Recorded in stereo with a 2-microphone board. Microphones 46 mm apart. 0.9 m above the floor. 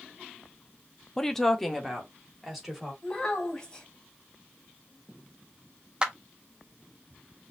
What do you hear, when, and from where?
1.2 s a woman speaking: 10° left (ahead or behind), 0.8 m; by 2.9 s 5° right (ahead or behind), 3 m
3.0 s a child speaking: 10° left (ahead or behind), 3.5 m
6.0 s a clap: 20° right (ahead or behind), 0.8 m